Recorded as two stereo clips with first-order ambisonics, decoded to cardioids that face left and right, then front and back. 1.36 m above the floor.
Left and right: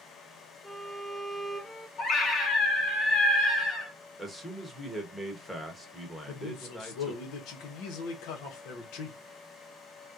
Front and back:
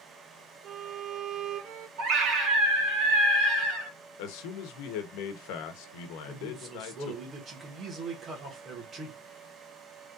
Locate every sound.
0.6 s a violin: 155° left, 0.6 m
2.0 s a scream: 140° left, 1.9 m
4.2 s a man speaking: 5° left, 1.0 m
6.3 s a man speaking: 115° left, 1.4 m